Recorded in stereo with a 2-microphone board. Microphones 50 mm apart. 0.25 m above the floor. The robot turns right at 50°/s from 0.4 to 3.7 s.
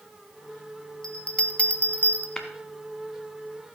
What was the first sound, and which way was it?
A bell, 10° left (ahead or behind).